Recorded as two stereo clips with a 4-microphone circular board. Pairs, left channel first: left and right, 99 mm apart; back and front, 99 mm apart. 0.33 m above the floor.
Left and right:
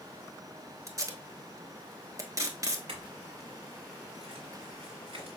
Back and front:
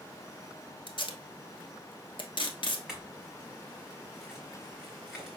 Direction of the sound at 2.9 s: 85° right.